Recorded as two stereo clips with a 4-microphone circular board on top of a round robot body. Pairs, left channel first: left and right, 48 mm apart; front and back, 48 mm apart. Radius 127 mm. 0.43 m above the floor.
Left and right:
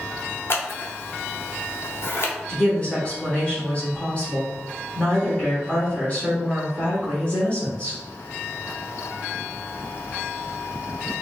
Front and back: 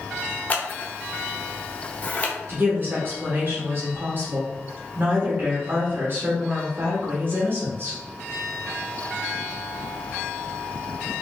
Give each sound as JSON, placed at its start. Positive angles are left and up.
{"t": 0.5, "sound": "scissors", "azimuth_deg": 55, "distance_m": 1.0}
{"t": 2.5, "sound": "a woman speaking", "azimuth_deg": 150, "distance_m": 1.6}